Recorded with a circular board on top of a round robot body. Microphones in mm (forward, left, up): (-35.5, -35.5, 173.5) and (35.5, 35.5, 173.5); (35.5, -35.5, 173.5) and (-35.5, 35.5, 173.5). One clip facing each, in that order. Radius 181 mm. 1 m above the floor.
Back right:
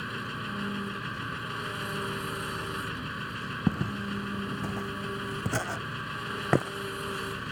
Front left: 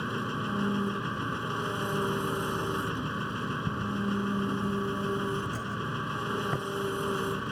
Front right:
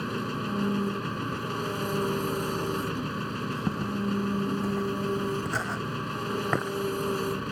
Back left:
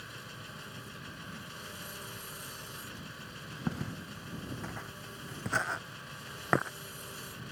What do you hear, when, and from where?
0.0 s an engine running: 15° right
3.7 s footsteps: 120° right; by 6.7 s 135° right